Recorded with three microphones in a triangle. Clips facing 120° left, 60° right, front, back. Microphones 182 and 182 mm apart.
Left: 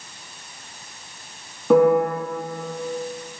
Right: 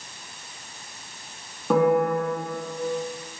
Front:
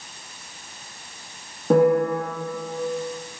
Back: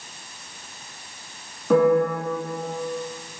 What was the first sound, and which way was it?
A piano, 30° left.